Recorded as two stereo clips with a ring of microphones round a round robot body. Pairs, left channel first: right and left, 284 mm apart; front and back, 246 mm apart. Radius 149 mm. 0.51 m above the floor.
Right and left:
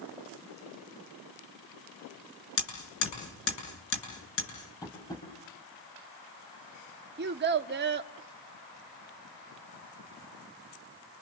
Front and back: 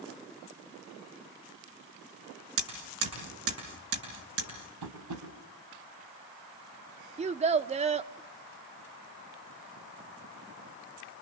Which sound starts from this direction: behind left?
A child speaking, at 7.2 s.